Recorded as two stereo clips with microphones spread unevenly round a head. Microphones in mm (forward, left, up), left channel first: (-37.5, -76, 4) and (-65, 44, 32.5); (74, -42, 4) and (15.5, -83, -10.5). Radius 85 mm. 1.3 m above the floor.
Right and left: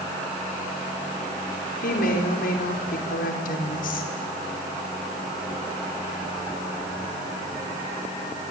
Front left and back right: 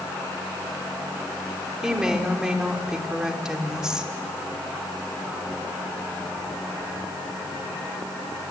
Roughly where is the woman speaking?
Ahead right.